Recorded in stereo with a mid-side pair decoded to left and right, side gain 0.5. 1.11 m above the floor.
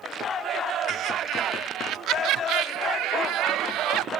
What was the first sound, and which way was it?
Laughter, 65° right.